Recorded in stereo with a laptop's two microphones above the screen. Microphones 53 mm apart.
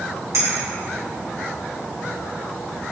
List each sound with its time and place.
0.3 s a clink: 75° right (ahead or behind), 1.3 m